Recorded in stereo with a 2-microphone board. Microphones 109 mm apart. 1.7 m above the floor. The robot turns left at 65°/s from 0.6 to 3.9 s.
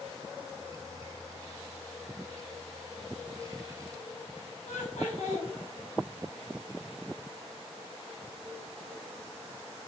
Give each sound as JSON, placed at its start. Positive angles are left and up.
{"t": 4.7, "sound": "laughter", "side_deg": 85, "distance_m": 1.1}